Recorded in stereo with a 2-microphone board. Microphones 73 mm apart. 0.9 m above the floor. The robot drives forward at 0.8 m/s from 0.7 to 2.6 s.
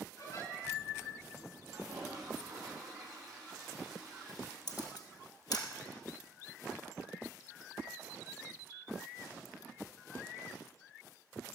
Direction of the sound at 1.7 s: 70° right (ahead or behind).